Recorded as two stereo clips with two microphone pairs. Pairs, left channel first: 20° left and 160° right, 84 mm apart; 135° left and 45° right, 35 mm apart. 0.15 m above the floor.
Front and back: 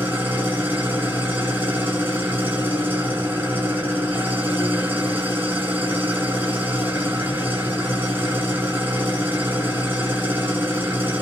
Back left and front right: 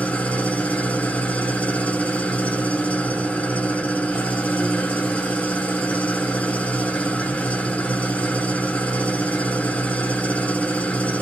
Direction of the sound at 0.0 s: 140° left.